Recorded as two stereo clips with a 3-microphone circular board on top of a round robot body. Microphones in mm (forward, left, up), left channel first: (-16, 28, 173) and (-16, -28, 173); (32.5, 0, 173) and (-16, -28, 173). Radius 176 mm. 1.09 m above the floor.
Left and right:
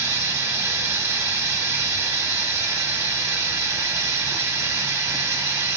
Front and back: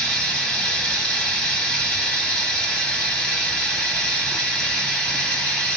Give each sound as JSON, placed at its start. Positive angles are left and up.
{"t": 0.0, "sound": "running water", "azimuth_deg": -40, "distance_m": 1.4}